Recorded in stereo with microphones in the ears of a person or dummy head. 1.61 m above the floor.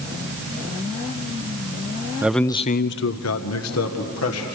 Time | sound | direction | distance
2.2 | a man speaking | 5° right (ahead or behind) | 0.6 m